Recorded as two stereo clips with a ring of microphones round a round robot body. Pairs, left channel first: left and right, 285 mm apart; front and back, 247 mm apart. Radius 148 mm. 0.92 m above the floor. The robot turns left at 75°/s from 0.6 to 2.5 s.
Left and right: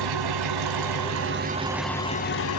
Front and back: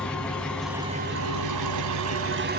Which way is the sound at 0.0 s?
85° right.